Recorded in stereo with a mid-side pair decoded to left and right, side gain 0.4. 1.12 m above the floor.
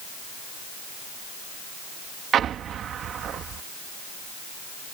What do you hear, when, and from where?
2.3 s an explosion: 70° right